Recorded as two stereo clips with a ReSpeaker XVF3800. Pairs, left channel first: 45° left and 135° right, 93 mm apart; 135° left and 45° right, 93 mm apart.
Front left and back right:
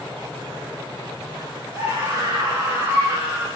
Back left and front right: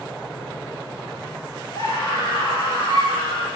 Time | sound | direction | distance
1.7 | a scream | 175° left | 5.5 m